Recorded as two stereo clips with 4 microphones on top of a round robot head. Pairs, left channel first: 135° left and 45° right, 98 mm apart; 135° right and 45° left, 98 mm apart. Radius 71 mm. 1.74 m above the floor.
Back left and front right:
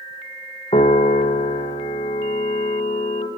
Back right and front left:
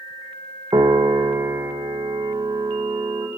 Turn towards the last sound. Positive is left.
turn(degrees=100)